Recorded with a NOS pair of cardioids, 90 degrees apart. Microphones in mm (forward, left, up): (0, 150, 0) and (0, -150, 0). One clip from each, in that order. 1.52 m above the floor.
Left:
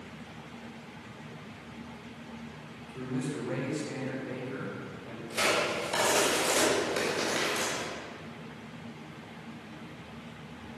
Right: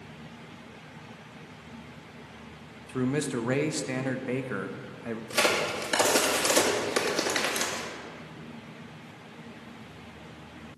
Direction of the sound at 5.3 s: 50° right.